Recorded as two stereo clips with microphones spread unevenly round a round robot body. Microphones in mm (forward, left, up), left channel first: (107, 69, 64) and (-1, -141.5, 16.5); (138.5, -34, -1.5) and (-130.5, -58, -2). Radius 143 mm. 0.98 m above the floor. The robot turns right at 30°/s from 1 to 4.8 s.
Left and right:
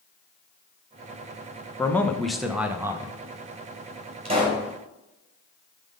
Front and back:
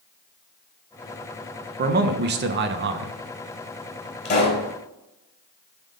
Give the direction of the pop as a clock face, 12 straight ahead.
2 o'clock.